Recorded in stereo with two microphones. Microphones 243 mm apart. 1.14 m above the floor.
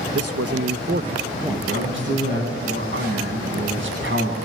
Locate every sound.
0.1 s a man speaking: 75° right (ahead or behind), 1.4 m; by 2.5 s 20° left (ahead or behind), 2.5 m
1.5 s a man speaking: 50° right (ahead or behind), 9 m